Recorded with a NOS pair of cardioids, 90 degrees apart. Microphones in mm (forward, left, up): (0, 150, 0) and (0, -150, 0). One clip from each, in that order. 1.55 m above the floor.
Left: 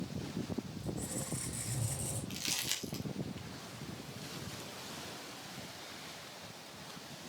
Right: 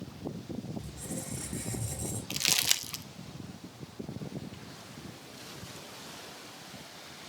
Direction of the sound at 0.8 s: 15° right.